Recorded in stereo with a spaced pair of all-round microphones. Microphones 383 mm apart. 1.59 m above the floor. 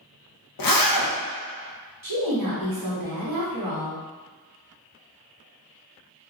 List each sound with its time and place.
0.6 s a zipper: 60° left (ahead or behind), 0.6 m
2.0 s a woman speaking: 60° right (ahead or behind), 1.2 m